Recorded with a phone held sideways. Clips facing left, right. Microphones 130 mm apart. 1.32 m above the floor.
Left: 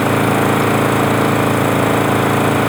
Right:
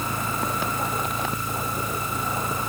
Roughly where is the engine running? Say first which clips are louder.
Left 15 dB; left.